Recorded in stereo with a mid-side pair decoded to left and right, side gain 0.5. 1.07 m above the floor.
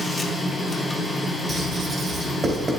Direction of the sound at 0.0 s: 25° left.